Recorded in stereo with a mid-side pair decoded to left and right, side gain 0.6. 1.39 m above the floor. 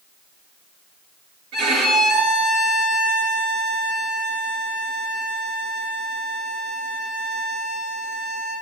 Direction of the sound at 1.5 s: 60° right.